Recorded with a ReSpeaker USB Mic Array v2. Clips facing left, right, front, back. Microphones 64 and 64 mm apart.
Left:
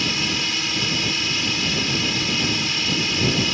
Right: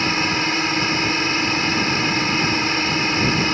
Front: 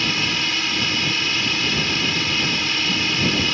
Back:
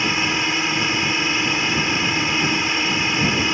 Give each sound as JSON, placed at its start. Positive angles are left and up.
{"t": 0.0, "sound": "a drone", "azimuth_deg": -120}